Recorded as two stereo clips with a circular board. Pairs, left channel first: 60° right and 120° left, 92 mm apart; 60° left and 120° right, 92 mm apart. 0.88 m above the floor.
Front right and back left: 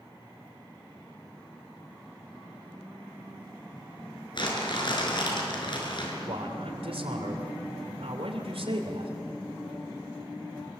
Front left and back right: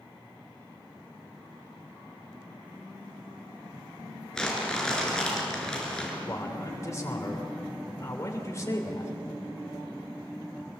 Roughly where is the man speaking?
Behind left.